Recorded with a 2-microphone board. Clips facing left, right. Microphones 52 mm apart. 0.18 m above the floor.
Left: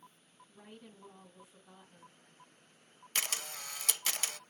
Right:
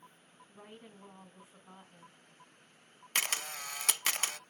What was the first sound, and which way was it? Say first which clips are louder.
A woman speaking: right 1 dB; 30° right (ahead or behind).